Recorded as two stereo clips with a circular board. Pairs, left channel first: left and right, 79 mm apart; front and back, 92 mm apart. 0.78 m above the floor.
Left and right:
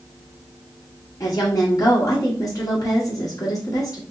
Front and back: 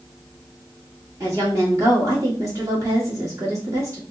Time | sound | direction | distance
1.2 | a woman speaking | 130° left | 1.4 m